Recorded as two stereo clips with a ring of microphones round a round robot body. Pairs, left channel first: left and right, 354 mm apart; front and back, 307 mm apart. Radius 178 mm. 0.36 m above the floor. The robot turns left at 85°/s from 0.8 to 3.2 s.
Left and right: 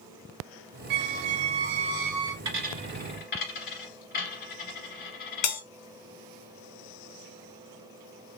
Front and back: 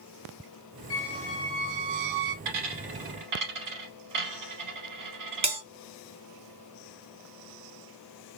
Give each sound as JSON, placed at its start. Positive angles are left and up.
{"t": 0.9, "sound": "a squeak", "azimuth_deg": -55, "distance_m": 0.6}
{"t": 2.5, "sound": "a dropped coin", "azimuth_deg": -140, "distance_m": 2.0}
{"t": 5.4, "sound": "a bell", "azimuth_deg": 115, "distance_m": 1.1}